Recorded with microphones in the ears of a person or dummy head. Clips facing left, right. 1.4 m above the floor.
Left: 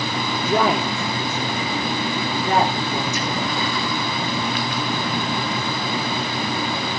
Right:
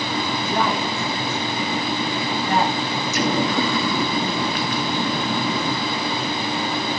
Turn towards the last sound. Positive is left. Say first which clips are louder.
# right 4 dB
turn(degrees=-60)  # may be behind; listen again after turning